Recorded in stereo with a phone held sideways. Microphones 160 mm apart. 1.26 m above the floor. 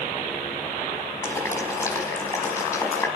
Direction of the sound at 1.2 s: 20° left (ahead or behind).